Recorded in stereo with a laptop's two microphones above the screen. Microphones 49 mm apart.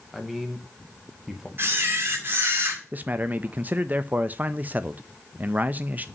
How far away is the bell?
I don't hear a bell.